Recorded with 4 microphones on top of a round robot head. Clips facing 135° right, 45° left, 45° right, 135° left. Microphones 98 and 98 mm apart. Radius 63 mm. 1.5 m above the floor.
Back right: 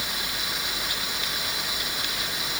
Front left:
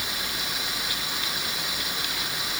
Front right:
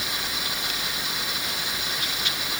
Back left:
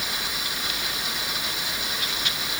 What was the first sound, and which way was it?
Only background noise.